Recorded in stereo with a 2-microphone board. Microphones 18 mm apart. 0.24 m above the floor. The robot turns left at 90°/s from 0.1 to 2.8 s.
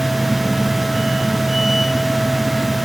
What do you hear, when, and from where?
Only background noise.